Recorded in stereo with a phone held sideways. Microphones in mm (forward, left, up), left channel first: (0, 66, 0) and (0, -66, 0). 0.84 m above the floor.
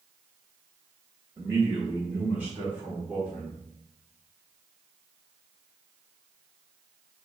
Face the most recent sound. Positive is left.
turn(degrees=-5)  # may be behind; listen again after turning